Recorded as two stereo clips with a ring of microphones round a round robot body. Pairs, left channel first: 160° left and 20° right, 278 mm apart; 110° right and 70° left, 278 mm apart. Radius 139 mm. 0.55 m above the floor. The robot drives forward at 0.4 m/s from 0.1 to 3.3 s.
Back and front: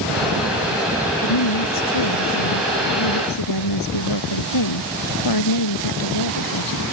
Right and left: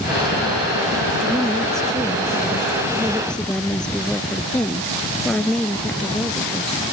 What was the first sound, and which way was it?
A woman speaking, 160° left.